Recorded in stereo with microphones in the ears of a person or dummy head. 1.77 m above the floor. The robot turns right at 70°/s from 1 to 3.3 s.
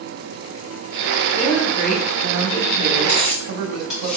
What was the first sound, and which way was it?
A woman speaking, 140° left.